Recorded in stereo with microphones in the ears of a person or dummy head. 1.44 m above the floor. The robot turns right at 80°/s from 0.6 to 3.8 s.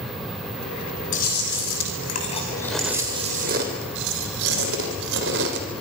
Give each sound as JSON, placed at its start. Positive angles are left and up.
{"t": 1.1, "sound": "chewing", "azimuth_deg": 50, "distance_m": 3.0}